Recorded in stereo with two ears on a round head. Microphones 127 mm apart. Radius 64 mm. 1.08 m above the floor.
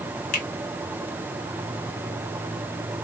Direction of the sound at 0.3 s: 55° left (ahead or behind).